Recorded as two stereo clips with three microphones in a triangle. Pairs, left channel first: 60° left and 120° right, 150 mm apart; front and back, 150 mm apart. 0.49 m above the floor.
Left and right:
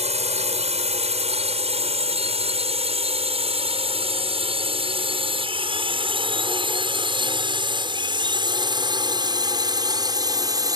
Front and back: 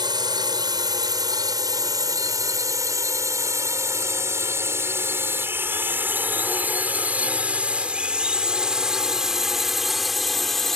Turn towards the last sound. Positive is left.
turn(degrees=-85)